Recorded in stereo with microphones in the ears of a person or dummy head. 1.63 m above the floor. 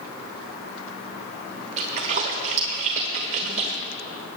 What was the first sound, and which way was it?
A splash, 30° right (ahead or behind).